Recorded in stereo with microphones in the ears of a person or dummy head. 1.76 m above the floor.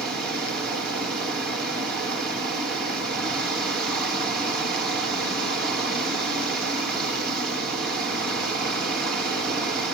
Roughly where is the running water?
Centre.